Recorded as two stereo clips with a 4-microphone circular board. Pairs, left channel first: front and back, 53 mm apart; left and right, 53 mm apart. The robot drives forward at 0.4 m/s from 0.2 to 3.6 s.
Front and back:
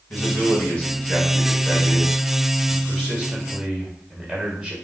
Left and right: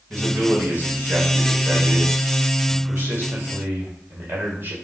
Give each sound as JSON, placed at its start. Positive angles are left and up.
{"t": 0.1, "sound": "a man speaking", "azimuth_deg": -50, "distance_m": 1.8}